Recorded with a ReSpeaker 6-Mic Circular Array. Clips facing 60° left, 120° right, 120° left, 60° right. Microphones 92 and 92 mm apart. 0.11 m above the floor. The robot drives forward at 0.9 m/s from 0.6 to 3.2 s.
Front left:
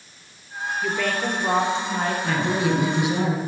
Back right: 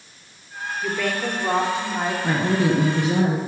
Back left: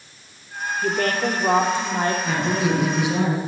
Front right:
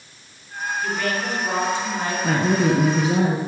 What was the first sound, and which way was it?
A woman speaking, 145° left.